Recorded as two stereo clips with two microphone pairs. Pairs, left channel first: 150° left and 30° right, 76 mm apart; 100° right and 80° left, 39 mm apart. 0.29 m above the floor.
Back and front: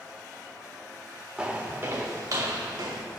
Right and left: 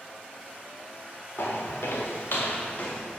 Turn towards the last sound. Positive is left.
turn(degrees=-50)